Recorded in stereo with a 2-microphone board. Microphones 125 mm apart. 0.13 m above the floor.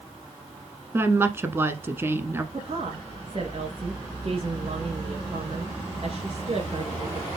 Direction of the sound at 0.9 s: 20° right (ahead or behind).